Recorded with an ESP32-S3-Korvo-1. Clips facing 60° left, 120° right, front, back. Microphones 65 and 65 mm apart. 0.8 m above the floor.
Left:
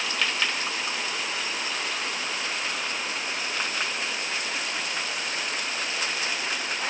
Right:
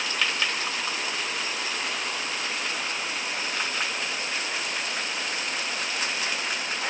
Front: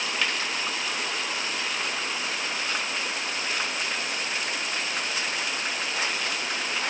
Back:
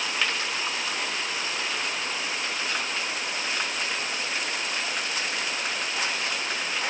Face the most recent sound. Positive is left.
No sound to turn to.